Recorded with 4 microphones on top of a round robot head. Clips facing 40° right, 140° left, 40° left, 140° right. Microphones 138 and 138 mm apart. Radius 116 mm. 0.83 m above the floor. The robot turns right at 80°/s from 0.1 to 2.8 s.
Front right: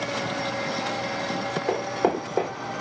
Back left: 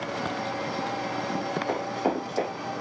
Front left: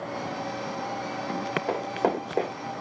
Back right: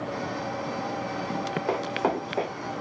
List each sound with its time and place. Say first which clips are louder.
1.7 s running footsteps: front right 5 dB, even; 50° right, 2.5 m; by 2.5 s 10° left, 2.5 m